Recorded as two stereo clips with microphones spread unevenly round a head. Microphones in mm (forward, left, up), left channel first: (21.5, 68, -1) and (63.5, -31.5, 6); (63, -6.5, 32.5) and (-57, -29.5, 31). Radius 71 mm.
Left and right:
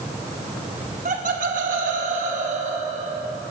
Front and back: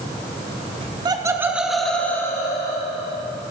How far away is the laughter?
About 1.0 m.